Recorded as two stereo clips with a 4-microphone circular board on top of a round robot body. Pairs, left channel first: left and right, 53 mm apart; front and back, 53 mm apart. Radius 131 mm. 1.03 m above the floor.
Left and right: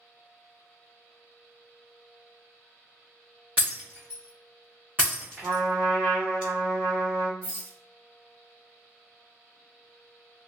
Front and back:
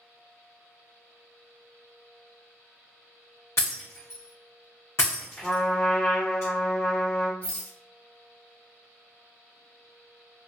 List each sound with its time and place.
3.6 s breaking glass: 35° right, 0.9 m
5.4 s a trumpet: 65° right, 0.7 m
7.4 s a rattle: 60° right, 1.9 m